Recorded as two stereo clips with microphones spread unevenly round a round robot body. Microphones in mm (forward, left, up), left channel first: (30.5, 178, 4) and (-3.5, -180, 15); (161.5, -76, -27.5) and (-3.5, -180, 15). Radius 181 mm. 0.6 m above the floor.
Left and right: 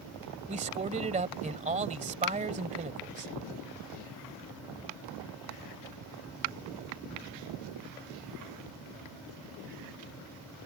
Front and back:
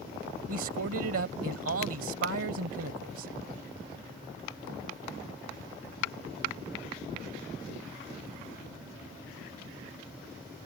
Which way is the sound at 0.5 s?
165° right.